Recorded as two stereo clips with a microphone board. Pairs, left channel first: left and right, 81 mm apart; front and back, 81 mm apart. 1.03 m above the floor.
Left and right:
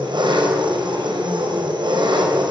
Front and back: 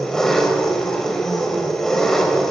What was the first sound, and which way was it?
An engine running, 85° right.